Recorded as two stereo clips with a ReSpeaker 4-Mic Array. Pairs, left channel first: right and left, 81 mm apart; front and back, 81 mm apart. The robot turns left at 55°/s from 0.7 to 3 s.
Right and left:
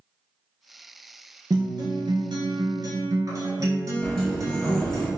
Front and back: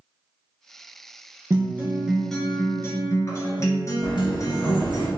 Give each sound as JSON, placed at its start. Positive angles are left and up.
{"t": 1.5, "sound": "a guitar", "azimuth_deg": 130, "distance_m": 1.3}
{"t": 4.0, "sound": "a sliding door", "azimuth_deg": -5, "distance_m": 1.8}